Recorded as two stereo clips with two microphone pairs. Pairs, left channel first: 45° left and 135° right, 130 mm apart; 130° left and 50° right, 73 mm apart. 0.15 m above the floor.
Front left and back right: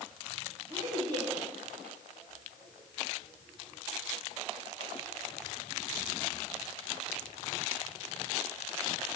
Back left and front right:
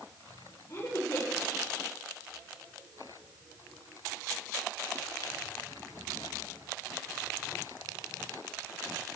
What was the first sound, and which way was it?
A woman speaking, 170° left.